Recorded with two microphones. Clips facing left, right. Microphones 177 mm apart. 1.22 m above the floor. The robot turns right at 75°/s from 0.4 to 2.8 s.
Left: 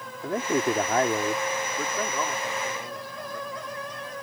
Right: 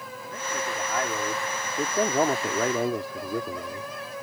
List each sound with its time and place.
0.2 s a man speaking: 95° left; by 3.9 s 85° right